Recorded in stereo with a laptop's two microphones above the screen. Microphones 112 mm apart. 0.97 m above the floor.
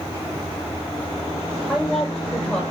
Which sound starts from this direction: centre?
A woman speaking, at 1.7 s.